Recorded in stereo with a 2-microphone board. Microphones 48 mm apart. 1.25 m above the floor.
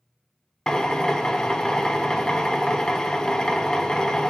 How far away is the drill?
About 0.6 m.